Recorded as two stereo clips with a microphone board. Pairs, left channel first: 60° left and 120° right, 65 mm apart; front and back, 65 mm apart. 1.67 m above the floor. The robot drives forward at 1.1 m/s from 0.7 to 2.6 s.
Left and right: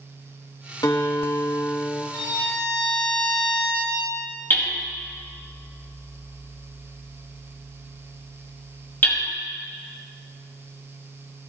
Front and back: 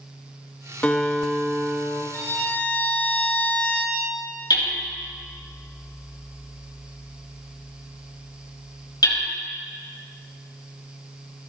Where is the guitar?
65° left, 1.3 m; by 2.0 s 125° left, 1.4 m.